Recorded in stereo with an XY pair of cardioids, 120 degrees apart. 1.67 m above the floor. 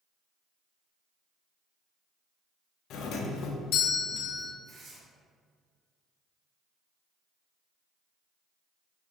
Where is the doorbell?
65° left, 0.6 m.